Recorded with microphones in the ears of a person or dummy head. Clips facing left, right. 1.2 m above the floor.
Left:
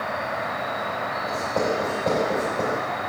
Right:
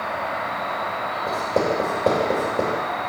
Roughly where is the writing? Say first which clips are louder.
Right 3 dB; right.